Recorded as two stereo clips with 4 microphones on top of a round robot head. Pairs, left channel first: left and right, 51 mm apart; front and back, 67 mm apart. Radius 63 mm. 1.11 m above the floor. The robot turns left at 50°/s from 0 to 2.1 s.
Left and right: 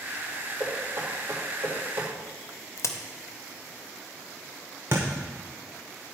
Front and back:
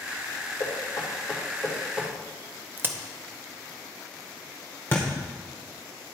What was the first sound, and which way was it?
Knocking, 30° right.